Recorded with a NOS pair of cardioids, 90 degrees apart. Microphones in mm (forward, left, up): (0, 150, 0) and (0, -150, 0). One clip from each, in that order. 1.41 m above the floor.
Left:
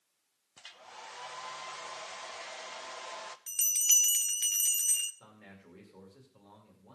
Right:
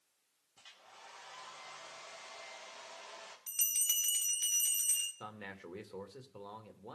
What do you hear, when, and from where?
0.6 s a hair dryer: 60° left, 1.3 m
3.5 s a bell: 30° left, 1.2 m
5.2 s a man speaking: 65° right, 2.5 m